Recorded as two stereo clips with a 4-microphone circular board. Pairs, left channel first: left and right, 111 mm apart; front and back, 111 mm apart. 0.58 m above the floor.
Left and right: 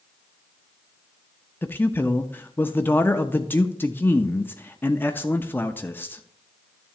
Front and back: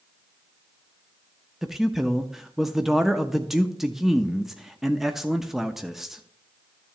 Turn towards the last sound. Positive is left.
turn(degrees=100)